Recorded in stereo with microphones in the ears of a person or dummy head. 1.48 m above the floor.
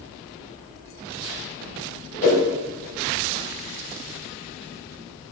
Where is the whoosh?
60° left (ahead or behind), 3 m.